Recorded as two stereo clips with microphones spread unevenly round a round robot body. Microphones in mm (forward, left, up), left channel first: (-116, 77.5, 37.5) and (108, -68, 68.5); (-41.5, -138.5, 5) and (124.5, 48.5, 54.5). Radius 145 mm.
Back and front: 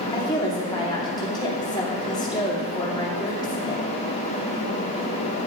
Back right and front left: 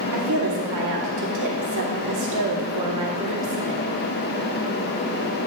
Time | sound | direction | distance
0.1 | a woman speaking | 75° left | 2.5 m